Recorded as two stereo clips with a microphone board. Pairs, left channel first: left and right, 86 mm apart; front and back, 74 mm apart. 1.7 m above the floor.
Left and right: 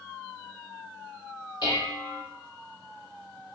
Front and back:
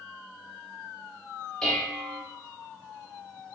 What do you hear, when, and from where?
1.6 s dishes clattering: 85° left, 1.4 m